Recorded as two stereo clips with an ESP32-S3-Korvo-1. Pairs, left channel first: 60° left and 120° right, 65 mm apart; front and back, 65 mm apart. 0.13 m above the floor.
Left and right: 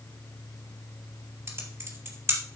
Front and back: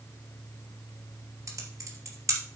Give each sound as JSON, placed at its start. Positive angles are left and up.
{"t": 1.5, "sound": "typing on a keyboard", "azimuth_deg": -155, "distance_m": 3.0}